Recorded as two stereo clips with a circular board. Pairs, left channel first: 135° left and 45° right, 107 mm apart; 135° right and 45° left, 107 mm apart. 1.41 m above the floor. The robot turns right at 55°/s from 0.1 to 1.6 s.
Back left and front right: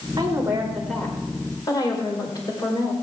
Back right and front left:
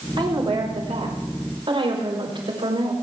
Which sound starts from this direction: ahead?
A woman speaking, at 0.2 s.